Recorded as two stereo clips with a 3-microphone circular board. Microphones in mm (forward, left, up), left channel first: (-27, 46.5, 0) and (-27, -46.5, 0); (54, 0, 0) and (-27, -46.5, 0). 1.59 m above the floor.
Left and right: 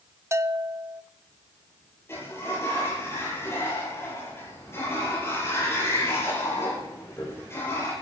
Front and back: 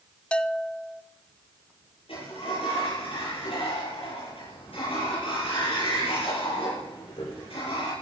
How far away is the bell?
About 0.7 m.